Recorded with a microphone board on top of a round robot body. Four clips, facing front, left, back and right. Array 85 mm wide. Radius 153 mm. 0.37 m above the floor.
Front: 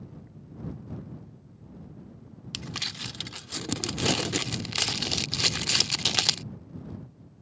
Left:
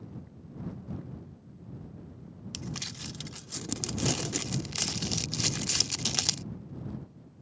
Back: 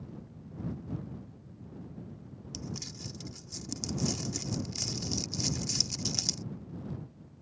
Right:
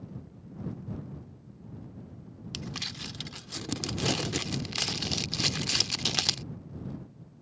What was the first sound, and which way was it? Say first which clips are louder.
Crumpling: right 1 dB, front 3 dB; 15° right.